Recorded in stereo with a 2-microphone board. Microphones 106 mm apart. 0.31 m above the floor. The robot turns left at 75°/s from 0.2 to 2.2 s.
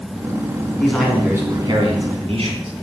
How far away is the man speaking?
About 3.5 m.